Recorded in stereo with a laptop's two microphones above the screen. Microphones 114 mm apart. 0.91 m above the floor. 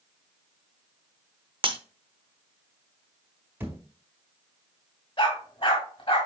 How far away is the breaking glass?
About 0.8 m.